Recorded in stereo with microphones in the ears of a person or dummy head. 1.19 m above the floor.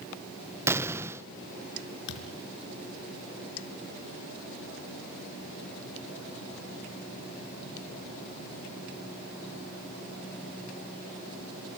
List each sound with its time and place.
0.7 s an explosion: 15° right (ahead or behind), 0.8 m
2.1 s a thud: 65° left (ahead or behind), 5.5 m